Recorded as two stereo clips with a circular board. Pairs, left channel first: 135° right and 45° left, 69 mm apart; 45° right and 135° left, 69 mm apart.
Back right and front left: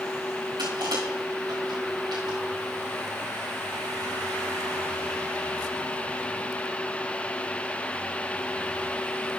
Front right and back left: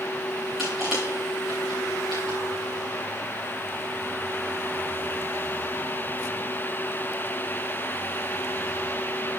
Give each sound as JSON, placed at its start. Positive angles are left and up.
{"t": 0.6, "sound": "crushing", "azimuth_deg": 50, "distance_m": 3.5}